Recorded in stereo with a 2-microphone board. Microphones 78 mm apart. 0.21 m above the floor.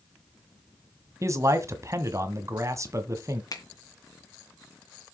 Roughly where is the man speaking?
Right.